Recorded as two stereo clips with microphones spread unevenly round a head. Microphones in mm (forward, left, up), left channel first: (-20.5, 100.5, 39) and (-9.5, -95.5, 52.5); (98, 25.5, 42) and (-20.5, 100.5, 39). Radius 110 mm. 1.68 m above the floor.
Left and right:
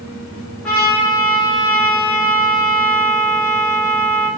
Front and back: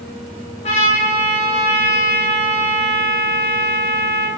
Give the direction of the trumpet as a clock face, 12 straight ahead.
12 o'clock.